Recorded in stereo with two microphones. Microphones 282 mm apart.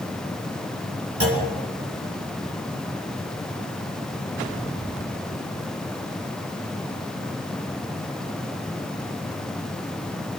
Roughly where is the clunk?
Right.